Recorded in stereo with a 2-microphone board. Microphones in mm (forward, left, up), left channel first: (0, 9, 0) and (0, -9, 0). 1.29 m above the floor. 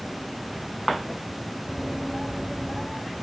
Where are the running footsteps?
Centre (ahead or behind).